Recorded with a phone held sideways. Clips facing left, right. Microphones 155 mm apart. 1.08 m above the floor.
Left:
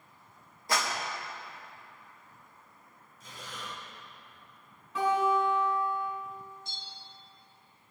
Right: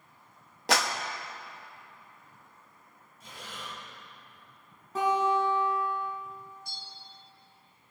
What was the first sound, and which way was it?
A clap, 85° right.